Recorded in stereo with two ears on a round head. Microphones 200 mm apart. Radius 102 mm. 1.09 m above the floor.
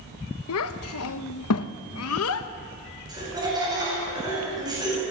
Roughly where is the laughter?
Centre.